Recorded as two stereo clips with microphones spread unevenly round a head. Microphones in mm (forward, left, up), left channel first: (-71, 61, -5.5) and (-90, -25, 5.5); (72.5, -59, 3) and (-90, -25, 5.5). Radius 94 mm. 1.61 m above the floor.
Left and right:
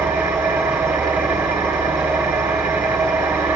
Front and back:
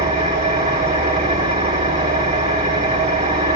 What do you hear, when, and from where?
0.0 s an engine running: 145° right, 1.6 m